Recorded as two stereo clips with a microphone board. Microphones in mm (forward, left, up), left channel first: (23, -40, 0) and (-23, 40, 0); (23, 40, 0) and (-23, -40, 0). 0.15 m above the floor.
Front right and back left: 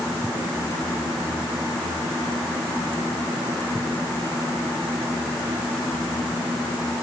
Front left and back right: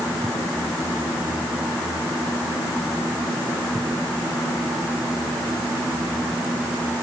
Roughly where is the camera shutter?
I don't hear a camera shutter.